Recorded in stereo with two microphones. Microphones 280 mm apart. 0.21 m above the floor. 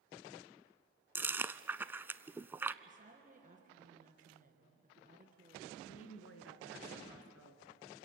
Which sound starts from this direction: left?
A woman speaking, at 5.8 s.